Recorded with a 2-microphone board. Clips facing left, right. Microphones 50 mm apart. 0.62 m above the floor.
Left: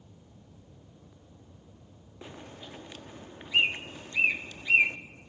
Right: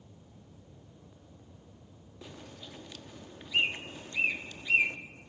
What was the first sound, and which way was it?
A bird, 30° left (ahead or behind).